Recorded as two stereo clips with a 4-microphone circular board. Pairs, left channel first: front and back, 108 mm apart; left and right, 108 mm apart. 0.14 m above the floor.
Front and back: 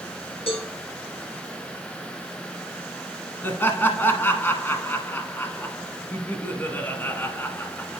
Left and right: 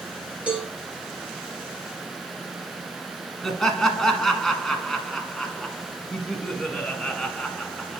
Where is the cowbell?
15° right, 2.5 m.